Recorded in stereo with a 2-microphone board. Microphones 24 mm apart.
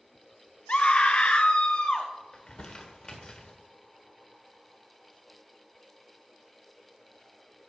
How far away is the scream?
About 1.0 m.